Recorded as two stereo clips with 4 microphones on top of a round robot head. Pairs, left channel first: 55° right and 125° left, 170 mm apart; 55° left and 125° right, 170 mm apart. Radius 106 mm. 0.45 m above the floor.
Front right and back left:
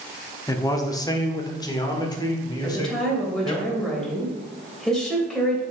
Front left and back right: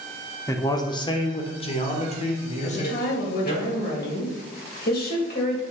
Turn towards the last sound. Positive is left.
turn(degrees=35)